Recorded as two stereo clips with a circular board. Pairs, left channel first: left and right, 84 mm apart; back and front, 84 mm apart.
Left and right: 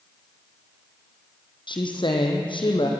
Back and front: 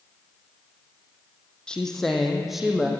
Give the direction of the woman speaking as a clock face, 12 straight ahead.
9 o'clock.